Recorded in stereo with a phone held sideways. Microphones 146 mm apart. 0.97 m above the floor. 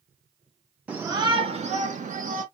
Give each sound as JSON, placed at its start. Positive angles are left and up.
{"t": 0.9, "sound": "a shout", "side_deg": -10, "distance_m": 0.6}